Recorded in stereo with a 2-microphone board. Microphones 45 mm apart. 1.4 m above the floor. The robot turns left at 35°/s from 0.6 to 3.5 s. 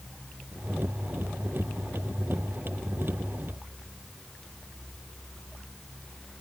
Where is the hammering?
I don't hear hammering.